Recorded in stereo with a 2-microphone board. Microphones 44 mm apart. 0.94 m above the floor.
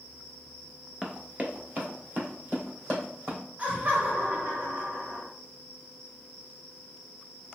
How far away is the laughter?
About 1.0 m.